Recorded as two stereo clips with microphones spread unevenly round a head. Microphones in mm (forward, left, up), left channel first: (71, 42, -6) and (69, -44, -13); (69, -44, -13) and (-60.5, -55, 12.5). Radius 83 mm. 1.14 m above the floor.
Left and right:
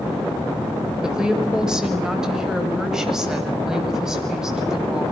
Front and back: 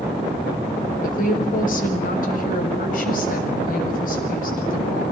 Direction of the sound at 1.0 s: 10° right.